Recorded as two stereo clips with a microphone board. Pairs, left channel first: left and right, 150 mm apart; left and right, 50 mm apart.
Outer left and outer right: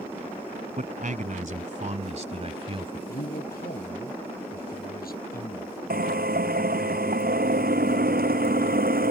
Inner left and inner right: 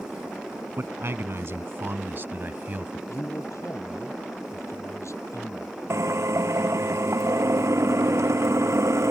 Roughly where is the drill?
Right.